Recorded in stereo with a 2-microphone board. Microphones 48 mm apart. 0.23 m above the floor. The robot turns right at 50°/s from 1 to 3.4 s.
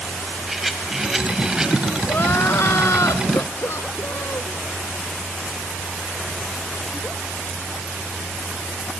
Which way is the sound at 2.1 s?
50° left.